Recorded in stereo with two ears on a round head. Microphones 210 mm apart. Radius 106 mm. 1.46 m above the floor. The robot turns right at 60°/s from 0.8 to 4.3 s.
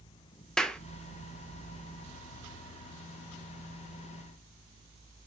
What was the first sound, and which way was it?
A clap, 5° left (ahead or behind).